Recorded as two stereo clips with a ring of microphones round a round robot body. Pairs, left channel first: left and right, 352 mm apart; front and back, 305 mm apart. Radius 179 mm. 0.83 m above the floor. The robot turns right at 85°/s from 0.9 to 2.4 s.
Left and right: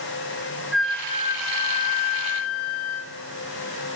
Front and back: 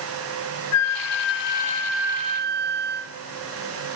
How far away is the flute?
About 0.5 m.